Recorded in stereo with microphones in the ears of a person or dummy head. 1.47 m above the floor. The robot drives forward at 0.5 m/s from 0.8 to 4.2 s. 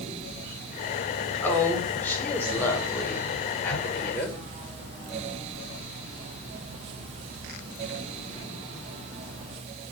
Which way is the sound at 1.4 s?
15° left (ahead or behind).